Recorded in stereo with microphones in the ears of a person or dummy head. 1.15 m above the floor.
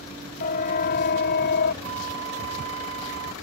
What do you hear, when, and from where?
0.4 s a siren: 45° left (ahead or behind); by 1.7 s 55° left (ahead or behind)
1.8 s a flute: 80° right